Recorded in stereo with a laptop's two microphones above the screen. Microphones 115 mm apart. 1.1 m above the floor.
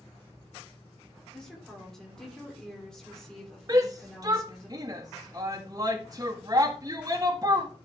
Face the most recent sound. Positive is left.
turn(degrees=-35)  # may be behind; listen again after turning